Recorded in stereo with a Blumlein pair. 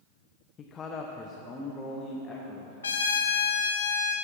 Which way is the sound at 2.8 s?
70° left.